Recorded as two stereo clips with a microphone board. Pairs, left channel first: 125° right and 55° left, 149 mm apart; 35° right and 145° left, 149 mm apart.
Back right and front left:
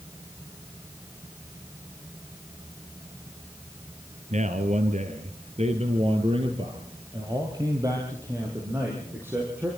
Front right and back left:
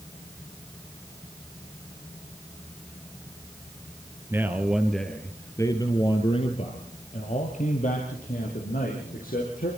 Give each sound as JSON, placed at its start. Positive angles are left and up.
{"t": 4.3, "sound": "a man speaking", "azimuth_deg": 75, "distance_m": 2.5}